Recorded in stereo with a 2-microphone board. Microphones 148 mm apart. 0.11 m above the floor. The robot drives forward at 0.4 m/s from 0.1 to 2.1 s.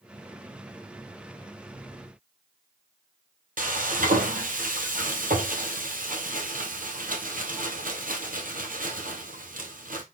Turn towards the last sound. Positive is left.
turn(degrees=-65)  # may be behind; listen again after turning